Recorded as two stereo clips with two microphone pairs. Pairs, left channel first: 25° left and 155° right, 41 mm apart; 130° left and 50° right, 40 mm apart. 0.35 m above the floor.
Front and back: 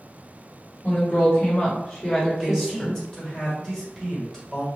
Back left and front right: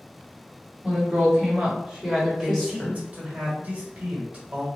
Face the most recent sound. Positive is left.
turn(degrees=-35)